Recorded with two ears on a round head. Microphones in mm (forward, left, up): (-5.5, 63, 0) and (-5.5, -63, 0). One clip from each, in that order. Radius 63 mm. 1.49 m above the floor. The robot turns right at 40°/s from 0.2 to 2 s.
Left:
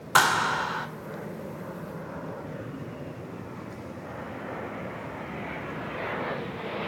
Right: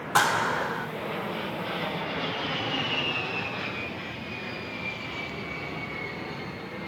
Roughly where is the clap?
Left.